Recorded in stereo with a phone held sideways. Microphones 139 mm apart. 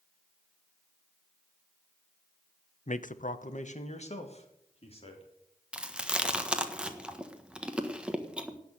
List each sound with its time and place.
2.9 s a man speaking: 55° left (ahead or behind), 0.8 m; by 5.3 s 45° left (ahead or behind), 3.5 m
5.7 s chewing: 10° right (ahead or behind), 1.4 m